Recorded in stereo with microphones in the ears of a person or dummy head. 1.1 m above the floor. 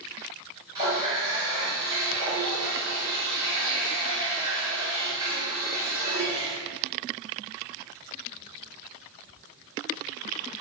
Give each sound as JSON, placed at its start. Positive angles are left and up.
{"t": 0.8, "sound": "a running tap", "side_deg": -25, "distance_m": 3.0}